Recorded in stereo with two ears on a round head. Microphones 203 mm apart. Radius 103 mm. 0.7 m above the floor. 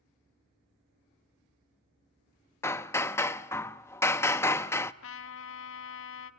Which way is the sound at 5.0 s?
65° left (ahead or behind).